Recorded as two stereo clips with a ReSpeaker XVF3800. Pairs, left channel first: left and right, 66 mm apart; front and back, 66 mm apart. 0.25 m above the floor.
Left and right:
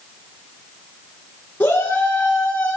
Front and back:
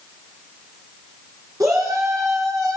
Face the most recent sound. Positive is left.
turn(degrees=155)